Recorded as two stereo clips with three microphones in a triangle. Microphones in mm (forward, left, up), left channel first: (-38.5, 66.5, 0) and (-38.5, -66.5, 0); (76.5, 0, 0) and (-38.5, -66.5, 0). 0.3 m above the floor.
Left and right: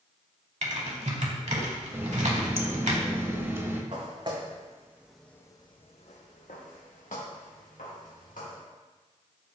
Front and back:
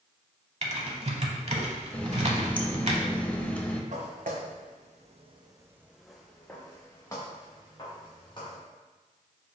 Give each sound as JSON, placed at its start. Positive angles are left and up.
{"t": 0.6, "sound": "typing on a keyboard", "azimuth_deg": -115, "distance_m": 0.8}
{"t": 1.9, "sound": "a running tap", "azimuth_deg": -40, "distance_m": 0.6}
{"t": 3.9, "sound": "footsteps", "azimuth_deg": -135, "distance_m": 1.4}